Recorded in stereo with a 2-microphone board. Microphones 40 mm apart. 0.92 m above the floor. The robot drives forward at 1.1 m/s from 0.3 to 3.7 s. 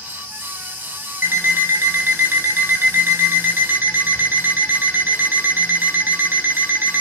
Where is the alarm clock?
75° right (ahead or behind), 4.5 m; by 7.0 s 70° right (ahead or behind), 4.5 m.